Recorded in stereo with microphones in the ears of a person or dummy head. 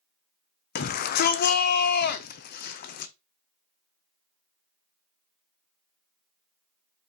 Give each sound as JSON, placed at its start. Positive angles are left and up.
{"t": 0.8, "sound": "a shout", "side_deg": 55, "distance_m": 0.6}